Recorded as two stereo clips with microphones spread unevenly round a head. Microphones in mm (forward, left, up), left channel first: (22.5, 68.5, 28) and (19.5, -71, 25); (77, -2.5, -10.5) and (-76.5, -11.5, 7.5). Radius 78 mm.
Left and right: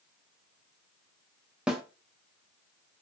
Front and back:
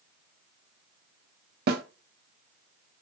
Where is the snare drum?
175° right, 0.6 m.